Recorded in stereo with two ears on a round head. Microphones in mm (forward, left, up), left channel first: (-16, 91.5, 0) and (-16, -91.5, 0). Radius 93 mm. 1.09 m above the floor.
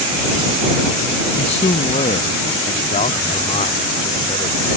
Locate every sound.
1.4 s a man speaking: 30° left (ahead or behind)